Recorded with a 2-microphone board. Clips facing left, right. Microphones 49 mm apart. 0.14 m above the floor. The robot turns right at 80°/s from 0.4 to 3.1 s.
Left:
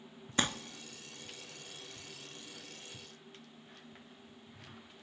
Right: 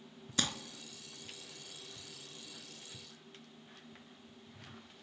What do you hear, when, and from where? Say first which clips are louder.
0.4 s crumpling: left 4 dB; 30° left (ahead or behind), 0.5 m; by 0.5 s 35° left (ahead or behind), 0.5 m